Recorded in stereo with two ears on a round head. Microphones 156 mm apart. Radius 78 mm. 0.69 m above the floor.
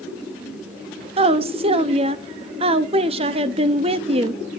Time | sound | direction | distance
1.2 | a woman speaking | 35° right (ahead or behind) | 0.7 m